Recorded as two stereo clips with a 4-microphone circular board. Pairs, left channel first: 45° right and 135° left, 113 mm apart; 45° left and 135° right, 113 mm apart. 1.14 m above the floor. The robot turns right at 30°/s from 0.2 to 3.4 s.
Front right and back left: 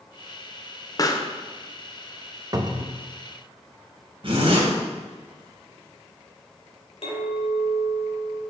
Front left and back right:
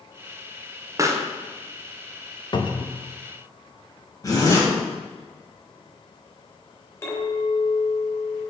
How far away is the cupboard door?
About 0.6 m.